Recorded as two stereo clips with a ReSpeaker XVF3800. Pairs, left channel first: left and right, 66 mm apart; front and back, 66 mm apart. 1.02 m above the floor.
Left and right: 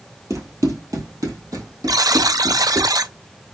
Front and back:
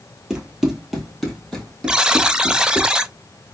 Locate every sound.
0.3 s running footsteps: 100° right, 1.5 m; by 2.9 s 75° right, 2.5 m
1.9 s a buzzer: 100° right, 0.5 m